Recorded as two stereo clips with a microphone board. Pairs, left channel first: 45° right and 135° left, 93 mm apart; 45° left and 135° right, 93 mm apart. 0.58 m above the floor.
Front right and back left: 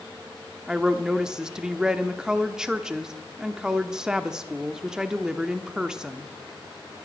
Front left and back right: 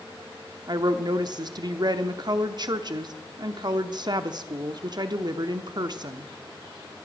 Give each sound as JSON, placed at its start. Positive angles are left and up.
{"t": 0.7, "sound": "a woman speaking", "azimuth_deg": -145, "distance_m": 0.8}